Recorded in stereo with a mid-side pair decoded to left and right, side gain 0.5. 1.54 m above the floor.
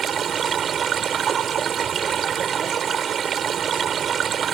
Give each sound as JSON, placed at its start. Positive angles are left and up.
{"t": 0.0, "sound": "running water", "azimuth_deg": -50}